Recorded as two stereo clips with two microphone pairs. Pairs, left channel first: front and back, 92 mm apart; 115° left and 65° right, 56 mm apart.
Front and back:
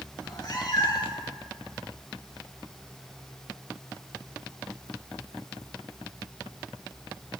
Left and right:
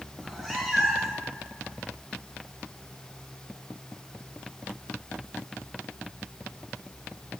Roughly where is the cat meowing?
Ahead.